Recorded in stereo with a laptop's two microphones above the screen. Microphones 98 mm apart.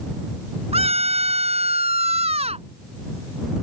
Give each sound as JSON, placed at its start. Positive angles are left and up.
{"t": 0.7, "sound": "a scream", "side_deg": -85}